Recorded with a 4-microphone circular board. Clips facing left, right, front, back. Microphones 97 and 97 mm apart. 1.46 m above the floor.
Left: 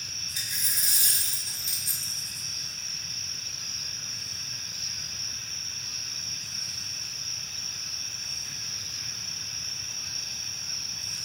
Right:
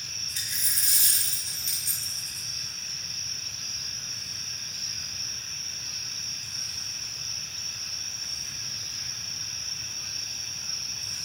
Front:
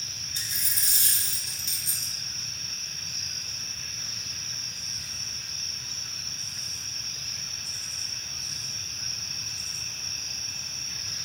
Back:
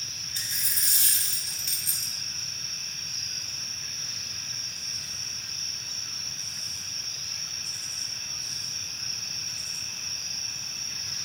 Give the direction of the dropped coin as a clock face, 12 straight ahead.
11 o'clock.